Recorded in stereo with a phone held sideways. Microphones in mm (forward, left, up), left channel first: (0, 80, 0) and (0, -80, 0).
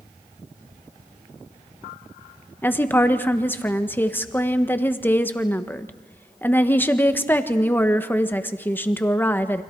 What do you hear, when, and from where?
2.6 s a woman speaking: 10° left (ahead or behind), 1.2 m